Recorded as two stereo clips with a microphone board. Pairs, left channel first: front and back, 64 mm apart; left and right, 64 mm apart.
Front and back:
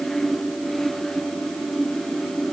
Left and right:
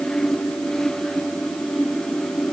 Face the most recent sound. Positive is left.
No sound to turn to.